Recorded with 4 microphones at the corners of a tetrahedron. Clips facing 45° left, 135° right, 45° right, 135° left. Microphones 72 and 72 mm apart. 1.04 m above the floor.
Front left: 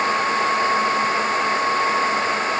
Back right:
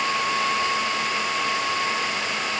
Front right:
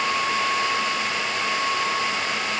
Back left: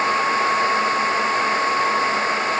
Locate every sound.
Only background noise.